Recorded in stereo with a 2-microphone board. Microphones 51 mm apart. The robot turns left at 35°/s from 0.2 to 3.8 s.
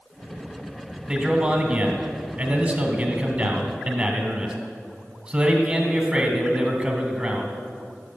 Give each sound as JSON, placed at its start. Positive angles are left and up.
{"t": 1.1, "sound": "a man speaking", "side_deg": -15, "distance_m": 1.8}